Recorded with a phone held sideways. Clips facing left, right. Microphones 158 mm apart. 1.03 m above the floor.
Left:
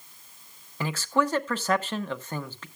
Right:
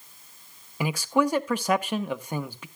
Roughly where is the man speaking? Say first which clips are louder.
Right 2 dB; centre.